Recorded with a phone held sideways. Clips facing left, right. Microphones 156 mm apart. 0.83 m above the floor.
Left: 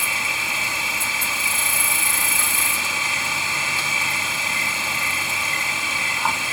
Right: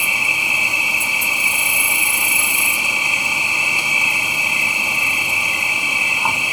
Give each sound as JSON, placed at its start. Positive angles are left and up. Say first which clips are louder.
{"t": 0.0, "sound": "an insect", "louder": "right 2 dB", "side_deg": -15}